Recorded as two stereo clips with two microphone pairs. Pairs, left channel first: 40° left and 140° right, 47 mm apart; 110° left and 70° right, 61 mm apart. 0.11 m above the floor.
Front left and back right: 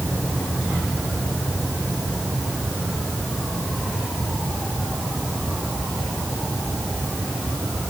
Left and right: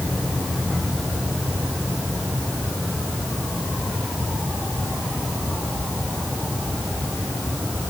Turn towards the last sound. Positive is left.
No sound to turn to.